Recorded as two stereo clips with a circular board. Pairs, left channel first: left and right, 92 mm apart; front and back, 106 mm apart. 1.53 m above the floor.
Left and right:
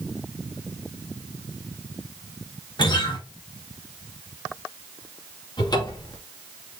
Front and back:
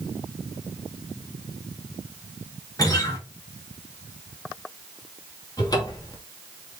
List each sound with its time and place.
2.8 s a guitar: 55° left, 2.5 m
5.6 s a cupboard door: 50° left, 2.5 m